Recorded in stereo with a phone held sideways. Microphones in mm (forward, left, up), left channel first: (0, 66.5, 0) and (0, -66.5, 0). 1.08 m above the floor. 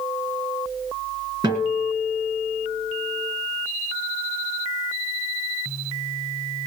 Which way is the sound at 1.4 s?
30° right (ahead or behind).